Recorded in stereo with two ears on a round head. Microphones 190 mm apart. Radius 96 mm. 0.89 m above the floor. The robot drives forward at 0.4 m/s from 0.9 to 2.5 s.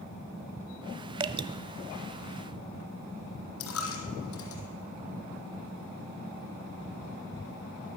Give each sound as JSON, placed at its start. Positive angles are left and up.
{"t": 1.2, "sound": "dripping", "side_deg": -20, "distance_m": 0.9}
{"t": 3.6, "sound": "a dropped coin", "side_deg": 75, "distance_m": 4.5}